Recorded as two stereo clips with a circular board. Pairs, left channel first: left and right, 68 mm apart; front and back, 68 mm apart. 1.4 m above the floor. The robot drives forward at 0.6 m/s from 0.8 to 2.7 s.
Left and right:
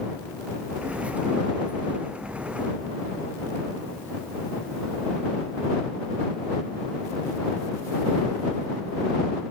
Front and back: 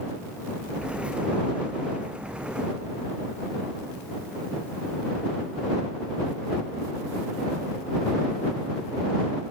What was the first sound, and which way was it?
Only background noise.